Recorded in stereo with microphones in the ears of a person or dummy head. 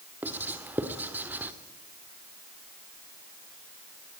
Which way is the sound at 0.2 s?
10° right (ahead or behind).